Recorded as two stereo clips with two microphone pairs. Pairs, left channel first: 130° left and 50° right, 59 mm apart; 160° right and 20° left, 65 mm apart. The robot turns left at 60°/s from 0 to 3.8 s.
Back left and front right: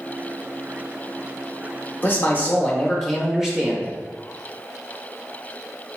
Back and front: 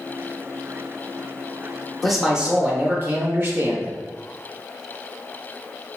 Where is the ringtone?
No ringtone in this recording.